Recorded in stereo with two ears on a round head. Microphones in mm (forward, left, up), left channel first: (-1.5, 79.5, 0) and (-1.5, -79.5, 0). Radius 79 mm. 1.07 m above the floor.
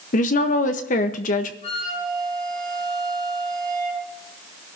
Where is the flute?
35° left (ahead or behind), 7.5 m.